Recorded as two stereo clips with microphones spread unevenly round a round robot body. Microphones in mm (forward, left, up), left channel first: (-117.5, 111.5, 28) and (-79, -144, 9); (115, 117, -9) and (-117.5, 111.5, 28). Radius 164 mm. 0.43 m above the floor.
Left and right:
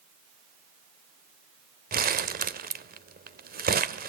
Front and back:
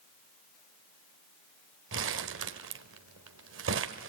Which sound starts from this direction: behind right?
Crumpling, at 1.9 s.